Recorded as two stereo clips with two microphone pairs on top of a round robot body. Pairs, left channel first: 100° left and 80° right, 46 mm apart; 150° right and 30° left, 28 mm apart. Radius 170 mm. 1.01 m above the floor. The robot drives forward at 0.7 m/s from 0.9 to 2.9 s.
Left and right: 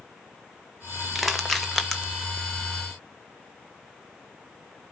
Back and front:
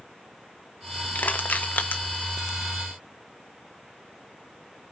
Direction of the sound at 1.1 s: 165° right.